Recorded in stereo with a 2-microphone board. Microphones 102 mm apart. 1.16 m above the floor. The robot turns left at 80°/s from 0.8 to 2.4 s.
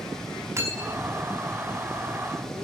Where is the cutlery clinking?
30° right (ahead or behind), 5 m; by 1.1 s 5° right (ahead or behind), 5 m.